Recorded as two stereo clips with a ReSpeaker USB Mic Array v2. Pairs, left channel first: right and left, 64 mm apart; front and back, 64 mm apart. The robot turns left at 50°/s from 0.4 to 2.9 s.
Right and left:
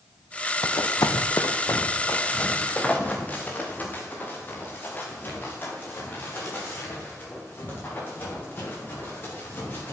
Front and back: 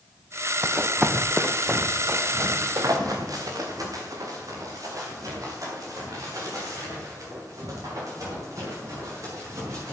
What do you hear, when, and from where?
0.6 s running footsteps: 110° right, 1.0 m; by 9.9 s 145° right, 10.5 m